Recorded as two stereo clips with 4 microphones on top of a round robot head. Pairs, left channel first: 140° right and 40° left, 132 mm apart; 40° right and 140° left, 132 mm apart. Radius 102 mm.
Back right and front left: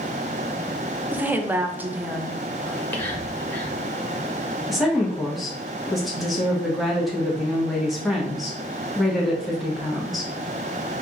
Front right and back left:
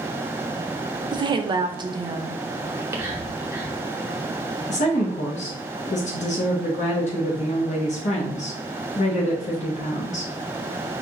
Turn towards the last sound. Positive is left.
turn(degrees=-50)